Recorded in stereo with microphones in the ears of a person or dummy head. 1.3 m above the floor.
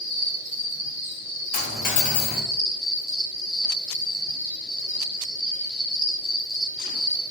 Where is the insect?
45° left (ahead or behind), 1.3 m.